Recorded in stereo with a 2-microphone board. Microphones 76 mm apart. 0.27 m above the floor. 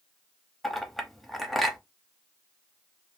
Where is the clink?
5° left (ahead or behind), 0.6 m.